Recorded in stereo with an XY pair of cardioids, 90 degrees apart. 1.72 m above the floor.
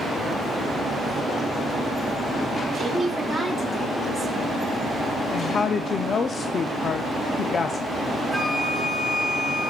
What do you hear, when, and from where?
2.8 s a woman speaking: 20° left, 5 m; by 4.8 s 5° right, 6 m
5.3 s a woman speaking: 55° left, 0.6 m
8.3 s a flute: 5° right, 4 m